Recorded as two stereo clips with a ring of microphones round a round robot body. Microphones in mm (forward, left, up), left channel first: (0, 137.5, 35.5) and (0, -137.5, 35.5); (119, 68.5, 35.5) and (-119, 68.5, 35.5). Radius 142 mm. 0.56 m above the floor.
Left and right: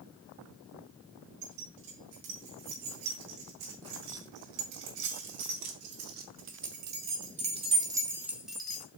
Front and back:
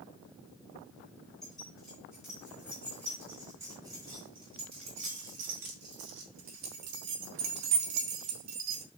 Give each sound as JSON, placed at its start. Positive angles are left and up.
{"t": 1.4, "sound": "keys jangling", "azimuth_deg": -90, "distance_m": 4.0}